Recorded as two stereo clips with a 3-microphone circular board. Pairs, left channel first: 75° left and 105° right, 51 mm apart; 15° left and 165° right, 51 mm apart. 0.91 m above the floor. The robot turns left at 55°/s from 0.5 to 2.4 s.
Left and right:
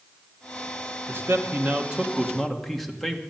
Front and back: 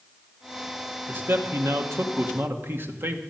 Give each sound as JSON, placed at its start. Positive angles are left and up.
{"t": 1.1, "sound": "a man speaking", "azimuth_deg": -125, "distance_m": 1.7}